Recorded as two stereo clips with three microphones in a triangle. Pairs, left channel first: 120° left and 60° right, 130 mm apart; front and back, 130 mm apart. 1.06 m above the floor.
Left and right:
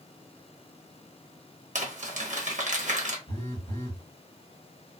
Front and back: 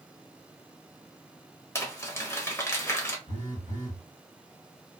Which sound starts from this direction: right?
Crumpling, at 1.8 s.